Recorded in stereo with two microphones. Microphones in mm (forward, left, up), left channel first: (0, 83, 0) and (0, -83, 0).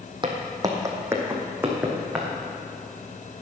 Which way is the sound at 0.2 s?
30° right (ahead or behind).